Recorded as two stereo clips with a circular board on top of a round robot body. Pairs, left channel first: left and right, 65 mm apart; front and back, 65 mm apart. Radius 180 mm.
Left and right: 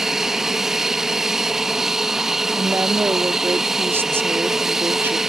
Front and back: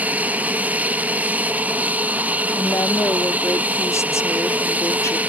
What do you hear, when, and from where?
0.0 s an aircraft: 165° right
2.5 s a woman speaking: 40° right